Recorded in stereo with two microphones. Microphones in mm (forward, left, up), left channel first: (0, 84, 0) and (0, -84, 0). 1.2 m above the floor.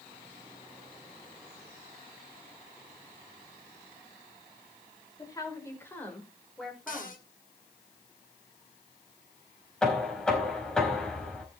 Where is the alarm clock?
I don't hear an alarm clock.